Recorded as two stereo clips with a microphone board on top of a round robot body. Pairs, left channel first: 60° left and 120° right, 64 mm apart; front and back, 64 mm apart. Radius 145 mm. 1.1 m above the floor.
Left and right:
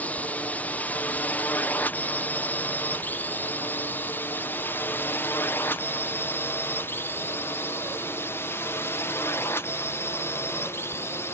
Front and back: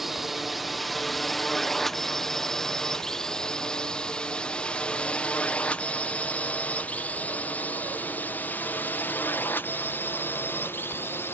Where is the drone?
95° left; by 11.4 s 35° left.